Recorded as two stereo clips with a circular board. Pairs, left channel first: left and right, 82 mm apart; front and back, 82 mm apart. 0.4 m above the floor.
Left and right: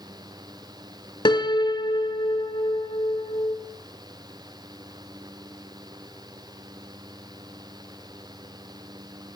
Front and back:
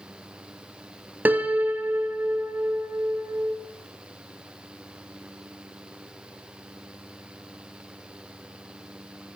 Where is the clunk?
No clunk in this recording.